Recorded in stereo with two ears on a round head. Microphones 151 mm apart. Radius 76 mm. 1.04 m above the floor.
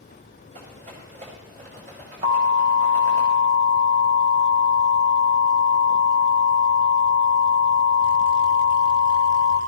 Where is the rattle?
45° right (ahead or behind), 5 m.